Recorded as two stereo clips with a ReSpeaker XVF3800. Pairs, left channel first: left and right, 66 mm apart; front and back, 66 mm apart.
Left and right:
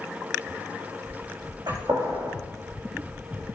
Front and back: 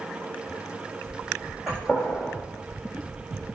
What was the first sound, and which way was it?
A gunshot, 95° right.